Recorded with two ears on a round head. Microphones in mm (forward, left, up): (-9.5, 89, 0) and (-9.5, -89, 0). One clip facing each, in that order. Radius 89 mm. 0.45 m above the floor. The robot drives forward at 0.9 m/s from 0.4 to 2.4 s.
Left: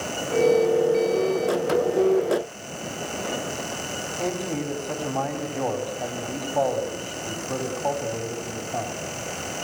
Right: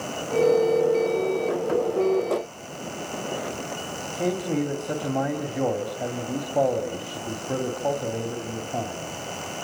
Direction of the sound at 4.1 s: 20° right (ahead or behind).